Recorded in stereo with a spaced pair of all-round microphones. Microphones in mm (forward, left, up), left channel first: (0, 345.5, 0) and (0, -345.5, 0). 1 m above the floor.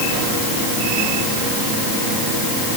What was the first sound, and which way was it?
Only background noise.